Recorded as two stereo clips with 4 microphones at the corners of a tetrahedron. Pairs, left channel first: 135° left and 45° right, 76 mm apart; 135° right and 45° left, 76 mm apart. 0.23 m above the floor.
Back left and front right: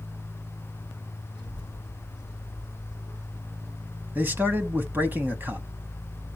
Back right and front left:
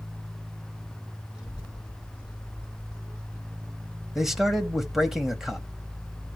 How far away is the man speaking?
About 1.2 m.